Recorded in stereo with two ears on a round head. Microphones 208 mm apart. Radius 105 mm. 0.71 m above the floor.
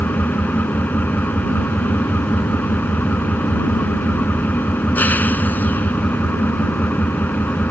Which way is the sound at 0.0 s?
10° left (ahead or behind).